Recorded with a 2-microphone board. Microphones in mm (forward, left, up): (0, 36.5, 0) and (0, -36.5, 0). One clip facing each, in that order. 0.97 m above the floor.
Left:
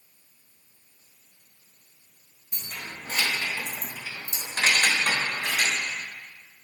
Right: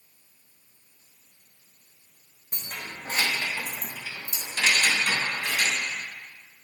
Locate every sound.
2.5 s keys jangling: 55° right (ahead or behind), 1.2 m; by 5.8 s 65° left (ahead or behind), 1.5 m